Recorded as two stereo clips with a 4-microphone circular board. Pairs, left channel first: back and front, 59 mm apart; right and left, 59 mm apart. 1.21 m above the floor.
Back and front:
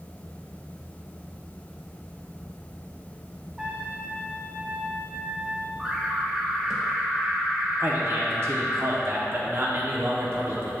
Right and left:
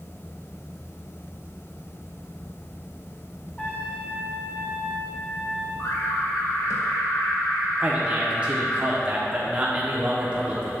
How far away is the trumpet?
About 1.1 m.